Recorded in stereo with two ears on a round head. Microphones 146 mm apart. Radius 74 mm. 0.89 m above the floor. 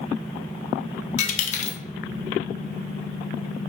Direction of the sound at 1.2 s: 45° left (ahead or behind).